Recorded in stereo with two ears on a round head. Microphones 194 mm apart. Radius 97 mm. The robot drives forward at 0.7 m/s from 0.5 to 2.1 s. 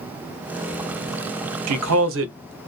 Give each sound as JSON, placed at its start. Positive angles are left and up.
{"t": 1.7, "sound": "a man speaking", "side_deg": -80, "distance_m": 0.6}